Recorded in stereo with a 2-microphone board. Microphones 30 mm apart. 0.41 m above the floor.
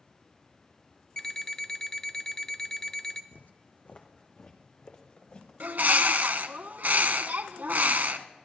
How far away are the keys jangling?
I don't hear keys jangling.